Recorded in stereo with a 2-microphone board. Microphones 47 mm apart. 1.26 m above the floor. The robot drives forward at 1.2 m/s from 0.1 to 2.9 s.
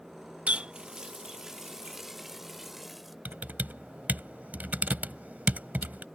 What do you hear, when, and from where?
0.5 s a running tap: 35° right (ahead or behind); by 3.1 s 5° right (ahead or behind)
3.2 s typing on a keyboard: 40° right (ahead or behind)